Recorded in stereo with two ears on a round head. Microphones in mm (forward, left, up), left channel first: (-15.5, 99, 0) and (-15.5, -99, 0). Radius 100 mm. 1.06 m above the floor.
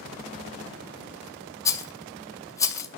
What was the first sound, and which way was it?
A rattle, 15° left (ahead or behind).